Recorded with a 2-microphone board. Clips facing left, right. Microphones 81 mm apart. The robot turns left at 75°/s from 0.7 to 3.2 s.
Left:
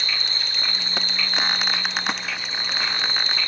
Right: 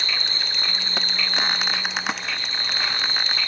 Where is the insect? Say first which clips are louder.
Right 1 dB; 65° right; by 3.5 s 105° left.